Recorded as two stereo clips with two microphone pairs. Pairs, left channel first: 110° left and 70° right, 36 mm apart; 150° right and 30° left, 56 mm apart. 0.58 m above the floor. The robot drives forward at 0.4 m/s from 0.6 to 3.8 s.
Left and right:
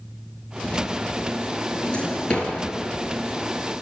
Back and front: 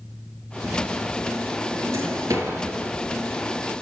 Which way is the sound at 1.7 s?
45° left.